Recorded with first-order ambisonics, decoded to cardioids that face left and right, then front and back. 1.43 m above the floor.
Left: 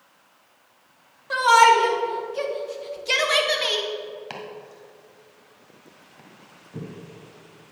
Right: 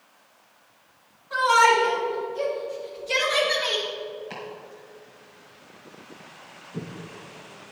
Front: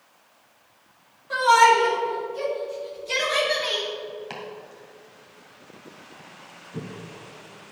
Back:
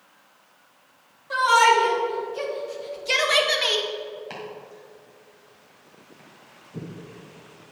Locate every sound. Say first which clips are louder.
1.3 s a shout: left 3 dB, front 1 dB; 90° left, 2.5 m; by 3.9 s 150° left, 1.6 m
4.3 s chopping: left 1 dB, even; 70° left, 1.5 m